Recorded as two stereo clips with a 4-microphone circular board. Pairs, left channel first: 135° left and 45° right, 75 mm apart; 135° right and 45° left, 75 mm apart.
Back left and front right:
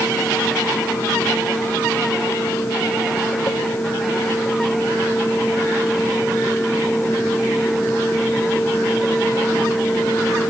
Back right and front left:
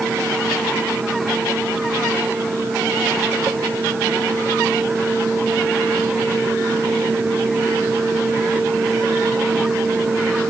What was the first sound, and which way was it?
Only background noise.